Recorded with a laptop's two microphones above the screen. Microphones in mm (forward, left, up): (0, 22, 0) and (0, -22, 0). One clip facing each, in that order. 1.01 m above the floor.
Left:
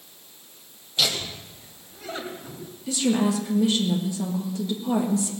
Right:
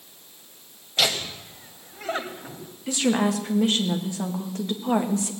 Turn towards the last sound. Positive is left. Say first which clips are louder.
# even
turn(degrees=-55)  # may be behind; listen again after turning